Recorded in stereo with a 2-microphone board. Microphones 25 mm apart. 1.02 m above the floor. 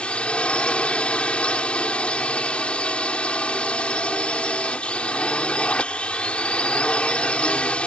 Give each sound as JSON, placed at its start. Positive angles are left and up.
{"t": 0.0, "sound": "a drone", "side_deg": 50}